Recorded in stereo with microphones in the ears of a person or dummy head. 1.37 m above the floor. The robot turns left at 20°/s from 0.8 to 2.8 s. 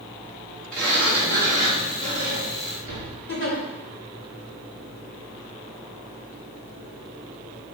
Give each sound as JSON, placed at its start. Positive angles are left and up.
{"t": 0.7, "sound": "a sliding door", "azimuth_deg": 175, "distance_m": 4.0}
{"t": 3.3, "sound": "a giggle", "side_deg": 55, "distance_m": 3.0}